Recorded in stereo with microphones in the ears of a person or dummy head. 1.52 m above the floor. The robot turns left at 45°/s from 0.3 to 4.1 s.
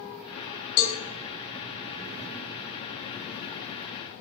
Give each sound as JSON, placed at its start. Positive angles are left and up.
{"t": 0.8, "sound": "a cowbell", "side_deg": 50, "distance_m": 2.5}